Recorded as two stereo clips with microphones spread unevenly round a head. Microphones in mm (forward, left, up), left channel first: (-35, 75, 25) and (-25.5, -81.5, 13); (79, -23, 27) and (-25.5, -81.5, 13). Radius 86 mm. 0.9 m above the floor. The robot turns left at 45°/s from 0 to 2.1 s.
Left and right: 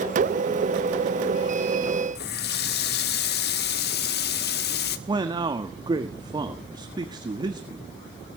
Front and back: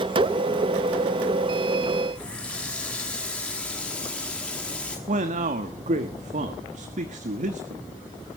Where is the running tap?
115° left, 1.3 m.